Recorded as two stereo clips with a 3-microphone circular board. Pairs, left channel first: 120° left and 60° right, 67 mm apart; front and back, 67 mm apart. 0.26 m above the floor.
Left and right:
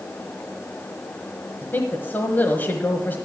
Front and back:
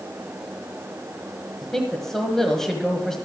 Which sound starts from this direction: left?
A woman speaking, at 1.6 s.